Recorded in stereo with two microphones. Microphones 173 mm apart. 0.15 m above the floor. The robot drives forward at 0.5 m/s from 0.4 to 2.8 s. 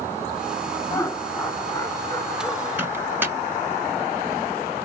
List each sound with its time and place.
0.9 s laughter: 15° left (ahead or behind), 1.5 m
2.8 s a microwave: 15° right (ahead or behind), 1.6 m; by 3.4 s 10° right (ahead or behind), 1.6 m